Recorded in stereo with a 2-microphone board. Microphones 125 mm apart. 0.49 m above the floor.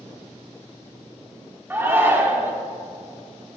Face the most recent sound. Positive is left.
turn(degrees=-15)  # may be behind; listen again after turning